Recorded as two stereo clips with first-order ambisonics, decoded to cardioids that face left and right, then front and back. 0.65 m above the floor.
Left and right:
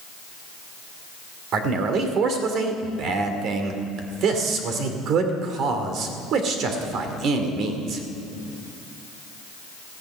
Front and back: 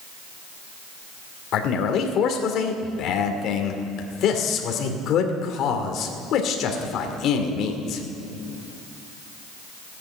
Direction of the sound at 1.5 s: 45° right.